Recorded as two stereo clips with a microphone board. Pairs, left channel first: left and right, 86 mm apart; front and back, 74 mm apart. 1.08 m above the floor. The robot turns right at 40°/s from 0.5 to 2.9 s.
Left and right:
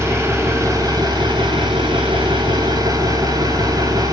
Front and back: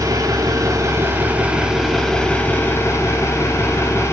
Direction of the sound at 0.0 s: 145° right.